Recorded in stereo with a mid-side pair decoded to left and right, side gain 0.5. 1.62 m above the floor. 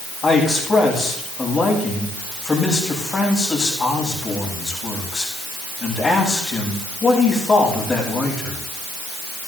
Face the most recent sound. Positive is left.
turn(degrees=30)